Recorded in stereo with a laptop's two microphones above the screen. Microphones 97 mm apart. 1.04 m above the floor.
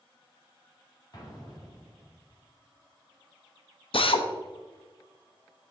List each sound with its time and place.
1.1 s an explosion: 40° left (ahead or behind), 1.8 m
3.9 s a drill: 65° left (ahead or behind), 0.6 m